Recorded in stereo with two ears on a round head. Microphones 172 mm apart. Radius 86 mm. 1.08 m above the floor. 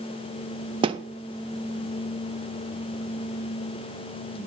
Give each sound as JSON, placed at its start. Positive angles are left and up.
{"t": 0.8, "sound": "a thud", "side_deg": -25, "distance_m": 0.5}